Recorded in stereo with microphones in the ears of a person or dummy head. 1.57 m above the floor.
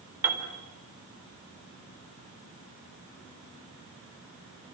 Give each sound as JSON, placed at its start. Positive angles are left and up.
{"t": 0.2, "sound": "a piano", "side_deg": -15, "distance_m": 4.0}